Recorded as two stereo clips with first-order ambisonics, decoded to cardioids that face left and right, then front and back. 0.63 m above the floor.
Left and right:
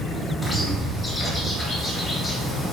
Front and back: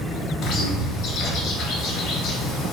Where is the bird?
10° left, 0.9 m.